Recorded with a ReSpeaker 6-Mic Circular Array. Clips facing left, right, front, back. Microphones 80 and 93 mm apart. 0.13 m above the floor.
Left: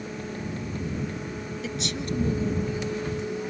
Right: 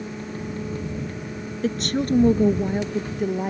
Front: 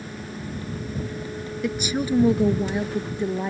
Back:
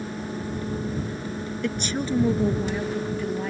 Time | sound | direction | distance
1.6 | a woman speaking | 80° right | ?